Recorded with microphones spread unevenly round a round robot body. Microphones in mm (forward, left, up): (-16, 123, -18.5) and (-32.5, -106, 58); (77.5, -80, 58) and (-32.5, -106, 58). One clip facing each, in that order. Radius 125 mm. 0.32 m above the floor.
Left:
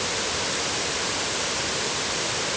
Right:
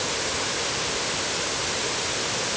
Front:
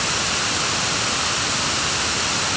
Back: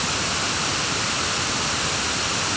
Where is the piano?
No piano in this recording.